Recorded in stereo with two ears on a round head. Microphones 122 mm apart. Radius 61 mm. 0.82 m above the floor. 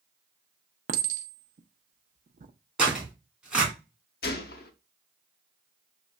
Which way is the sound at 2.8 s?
5° right (ahead or behind).